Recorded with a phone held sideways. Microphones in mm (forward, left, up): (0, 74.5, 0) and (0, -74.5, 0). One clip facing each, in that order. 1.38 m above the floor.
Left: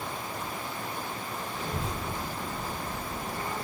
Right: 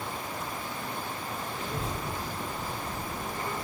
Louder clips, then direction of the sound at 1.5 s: Left 2 dB; 40° left (ahead or behind).